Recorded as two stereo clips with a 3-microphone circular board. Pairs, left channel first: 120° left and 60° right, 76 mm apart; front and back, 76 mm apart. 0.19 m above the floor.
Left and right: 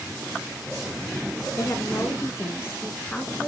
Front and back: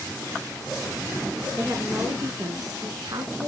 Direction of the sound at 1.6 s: 135° left.